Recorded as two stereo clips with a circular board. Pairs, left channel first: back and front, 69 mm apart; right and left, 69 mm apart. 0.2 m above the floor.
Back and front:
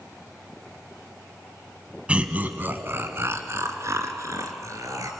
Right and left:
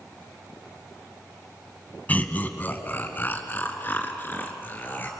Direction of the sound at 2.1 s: 55° right.